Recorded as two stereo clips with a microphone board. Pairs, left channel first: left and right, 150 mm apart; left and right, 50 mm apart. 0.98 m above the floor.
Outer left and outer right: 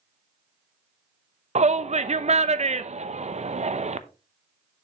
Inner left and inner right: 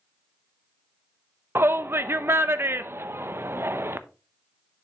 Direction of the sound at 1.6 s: 50° right (ahead or behind).